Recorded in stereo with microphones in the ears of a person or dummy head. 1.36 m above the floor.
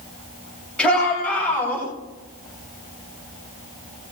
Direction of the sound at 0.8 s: 5° left (ahead or behind).